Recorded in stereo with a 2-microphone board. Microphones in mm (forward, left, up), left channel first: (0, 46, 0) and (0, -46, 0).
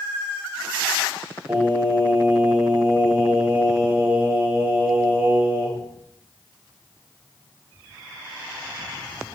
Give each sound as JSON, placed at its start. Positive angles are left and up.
{"t": 1.5, "sound": "singing", "side_deg": -20, "distance_m": 1.3}